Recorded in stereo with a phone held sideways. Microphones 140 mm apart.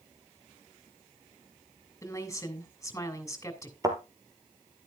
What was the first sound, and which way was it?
A woman speaking, 20° left (ahead or behind).